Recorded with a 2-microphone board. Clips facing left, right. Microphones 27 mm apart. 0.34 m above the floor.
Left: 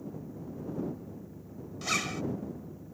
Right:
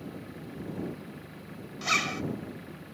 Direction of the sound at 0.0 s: 80° right.